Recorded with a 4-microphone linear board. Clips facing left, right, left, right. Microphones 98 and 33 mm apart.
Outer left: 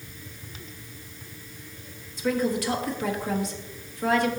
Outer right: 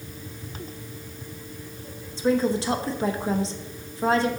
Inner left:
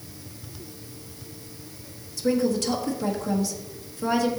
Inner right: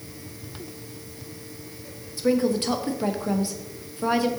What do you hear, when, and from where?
2.2 s a woman speaking: 30° right (ahead or behind), 1.0 m